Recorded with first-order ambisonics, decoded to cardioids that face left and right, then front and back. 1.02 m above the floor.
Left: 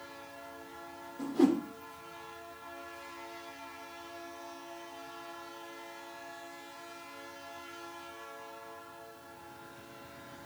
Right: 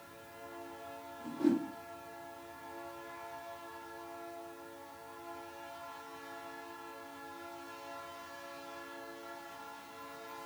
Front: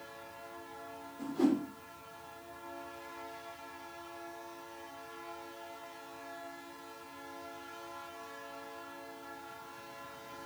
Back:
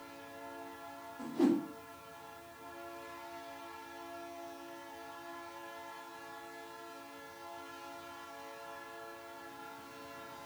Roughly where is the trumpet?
I don't hear a trumpet.